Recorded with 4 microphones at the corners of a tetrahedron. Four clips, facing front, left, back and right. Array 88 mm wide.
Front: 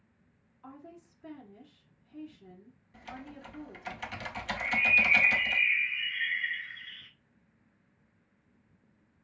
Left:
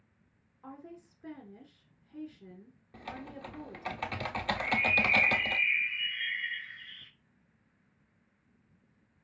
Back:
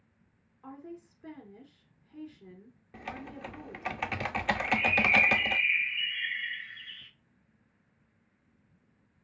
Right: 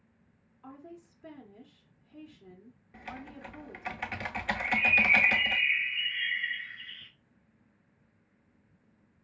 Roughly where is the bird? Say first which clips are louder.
Right 3 dB, front 3 dB; ahead left.